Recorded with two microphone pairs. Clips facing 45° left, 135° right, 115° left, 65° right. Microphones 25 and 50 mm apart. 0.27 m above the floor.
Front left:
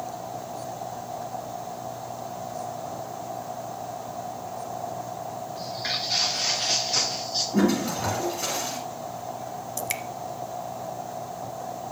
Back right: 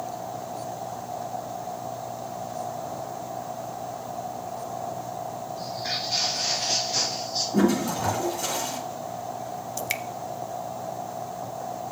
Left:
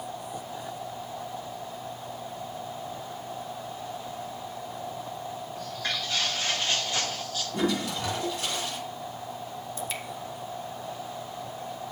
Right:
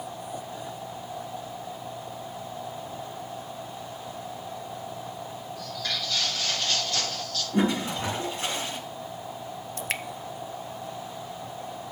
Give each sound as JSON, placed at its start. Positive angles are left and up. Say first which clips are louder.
{"t": 5.5, "sound": "footsteps", "louder": "front left 1 dB, even", "azimuth_deg": 55, "distance_m": 6.5}
{"t": 7.5, "sound": "a toilet flushing", "louder": "back right 1 dB, right 3 dB", "azimuth_deg": -10, "distance_m": 5.5}
{"t": 9.8, "sound": "dripping", "louder": "back right 1 dB, right 4 dB", "azimuth_deg": -60, "distance_m": 0.5}